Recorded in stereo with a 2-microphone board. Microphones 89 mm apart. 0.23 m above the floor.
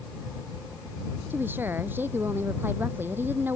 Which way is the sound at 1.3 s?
20° right (ahead or behind).